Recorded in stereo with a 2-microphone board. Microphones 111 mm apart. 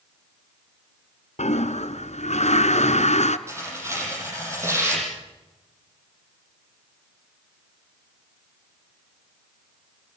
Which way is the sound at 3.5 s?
25° right (ahead or behind).